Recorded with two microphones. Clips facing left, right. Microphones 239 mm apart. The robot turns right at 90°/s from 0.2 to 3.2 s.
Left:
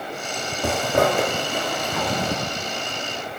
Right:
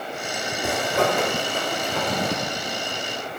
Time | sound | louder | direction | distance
0.6 | a zipper | left 3 dB | 75° left (ahead or behind) | 0.5 m